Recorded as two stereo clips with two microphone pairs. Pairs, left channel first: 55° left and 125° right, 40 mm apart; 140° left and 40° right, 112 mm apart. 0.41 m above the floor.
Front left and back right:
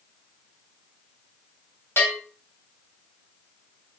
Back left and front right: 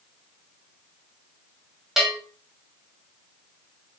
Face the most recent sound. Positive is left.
turn(degrees=45)